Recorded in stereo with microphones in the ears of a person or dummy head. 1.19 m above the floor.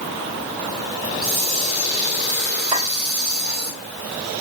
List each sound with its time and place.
1.0 s a hiss: 50° right (ahead or behind), 2 m
2.7 s a clink: 25° right (ahead or behind), 3 m